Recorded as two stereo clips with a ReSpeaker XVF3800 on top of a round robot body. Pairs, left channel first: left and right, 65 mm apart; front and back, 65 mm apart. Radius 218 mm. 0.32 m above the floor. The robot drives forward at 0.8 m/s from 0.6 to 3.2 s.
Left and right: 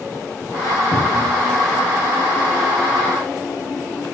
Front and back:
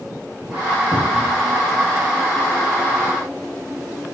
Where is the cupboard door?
110° left, 5 m; by 1.5 s 115° left, 5 m.